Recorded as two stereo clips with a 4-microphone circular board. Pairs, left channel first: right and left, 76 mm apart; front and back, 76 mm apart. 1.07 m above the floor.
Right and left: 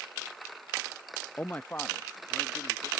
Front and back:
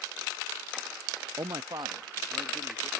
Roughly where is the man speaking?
Behind right.